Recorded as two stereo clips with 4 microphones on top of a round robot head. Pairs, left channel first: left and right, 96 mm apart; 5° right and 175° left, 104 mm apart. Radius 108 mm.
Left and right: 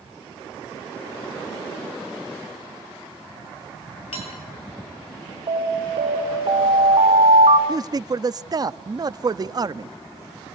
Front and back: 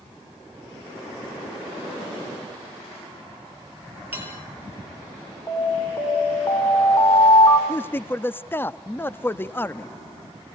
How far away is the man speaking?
About 0.8 m.